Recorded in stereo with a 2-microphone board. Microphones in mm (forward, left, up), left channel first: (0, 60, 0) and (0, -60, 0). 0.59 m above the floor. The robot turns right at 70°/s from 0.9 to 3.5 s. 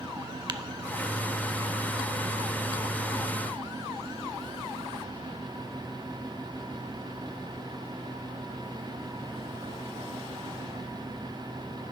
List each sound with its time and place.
0.5 s tapping: 40° right (ahead or behind), 0.5 m